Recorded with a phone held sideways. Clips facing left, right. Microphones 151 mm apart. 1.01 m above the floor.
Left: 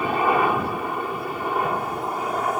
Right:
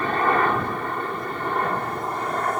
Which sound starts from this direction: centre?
A helicopter, at 0.0 s.